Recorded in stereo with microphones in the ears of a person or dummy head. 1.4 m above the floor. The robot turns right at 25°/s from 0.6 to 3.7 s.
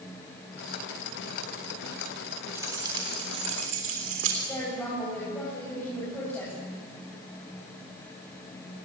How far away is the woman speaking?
About 9 m.